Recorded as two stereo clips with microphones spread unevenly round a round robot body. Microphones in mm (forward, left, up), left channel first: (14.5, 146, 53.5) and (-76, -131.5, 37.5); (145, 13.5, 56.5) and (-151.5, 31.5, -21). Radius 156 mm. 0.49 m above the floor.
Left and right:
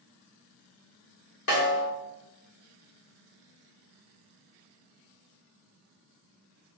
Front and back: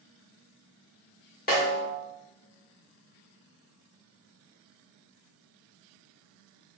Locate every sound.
1.5 s a snare drum: 60° left, 1.6 m